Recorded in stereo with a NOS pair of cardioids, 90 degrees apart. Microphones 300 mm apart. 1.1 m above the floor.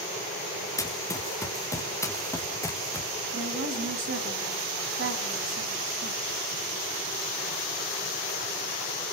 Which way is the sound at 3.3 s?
45° right.